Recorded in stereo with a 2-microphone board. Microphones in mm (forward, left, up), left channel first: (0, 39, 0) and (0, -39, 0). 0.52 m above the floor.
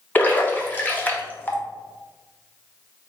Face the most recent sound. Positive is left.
turn(degrees=25)  # may be behind; listen again after turning